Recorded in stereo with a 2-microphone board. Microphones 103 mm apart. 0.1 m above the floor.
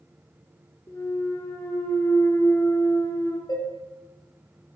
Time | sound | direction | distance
0.9 | a clunk | 25° left (ahead or behind) | 1.0 m
3.5 | dishes clattering | 40° left (ahead or behind) | 1.3 m